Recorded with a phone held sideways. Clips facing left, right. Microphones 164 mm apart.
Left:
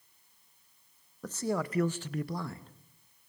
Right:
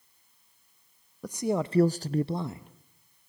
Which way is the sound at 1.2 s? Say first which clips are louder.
Right 4 dB; 10° right (ahead or behind).